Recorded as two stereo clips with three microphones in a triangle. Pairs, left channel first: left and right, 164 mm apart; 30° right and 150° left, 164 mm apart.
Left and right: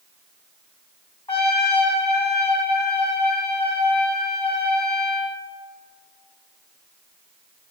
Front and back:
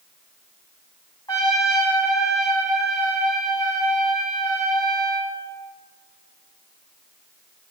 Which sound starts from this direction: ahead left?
A trumpet, at 1.3 s.